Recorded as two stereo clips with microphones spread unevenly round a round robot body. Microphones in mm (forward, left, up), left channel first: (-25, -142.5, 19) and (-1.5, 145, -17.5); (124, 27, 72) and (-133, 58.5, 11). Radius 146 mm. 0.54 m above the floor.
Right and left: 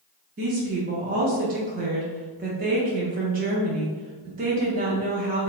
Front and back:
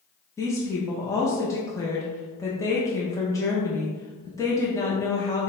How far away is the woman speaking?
About 0.7 m.